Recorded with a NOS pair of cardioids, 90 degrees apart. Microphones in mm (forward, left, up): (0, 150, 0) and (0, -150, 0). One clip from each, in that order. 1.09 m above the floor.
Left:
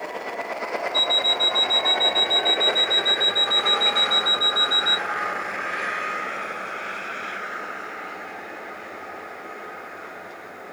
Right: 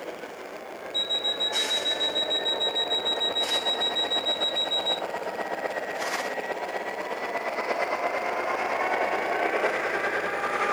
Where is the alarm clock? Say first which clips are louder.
Left 6 dB; 10° left, 1.0 m.